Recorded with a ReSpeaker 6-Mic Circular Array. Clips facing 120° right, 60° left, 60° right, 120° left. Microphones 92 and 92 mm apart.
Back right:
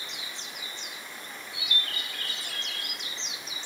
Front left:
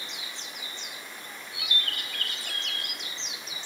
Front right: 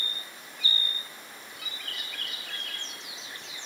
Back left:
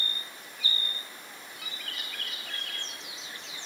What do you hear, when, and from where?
1.6 s a bird: 30° left, 6.5 m